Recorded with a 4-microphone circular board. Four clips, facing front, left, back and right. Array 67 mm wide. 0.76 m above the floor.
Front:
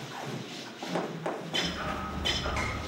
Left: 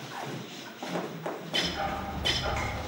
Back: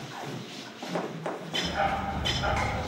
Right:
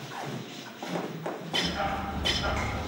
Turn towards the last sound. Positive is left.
turn(degrees=-175)